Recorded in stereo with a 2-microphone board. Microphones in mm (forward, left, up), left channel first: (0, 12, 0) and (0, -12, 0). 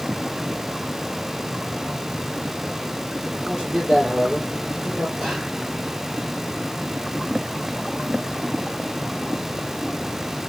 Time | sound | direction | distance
3.3 | a man speaking | 20° right (ahead or behind) | 5 m
5.2 | whispering | 30° right (ahead or behind) | 4 m